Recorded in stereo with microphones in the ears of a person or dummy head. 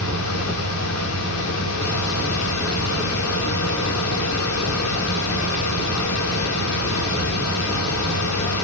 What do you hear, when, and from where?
0.0 s a fan: 75° left (ahead or behind), 5.5 m